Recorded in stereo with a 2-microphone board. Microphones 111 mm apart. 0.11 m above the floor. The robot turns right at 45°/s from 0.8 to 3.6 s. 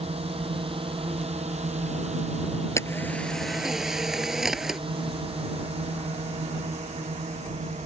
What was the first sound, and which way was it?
A drone, 60° right (ahead or behind).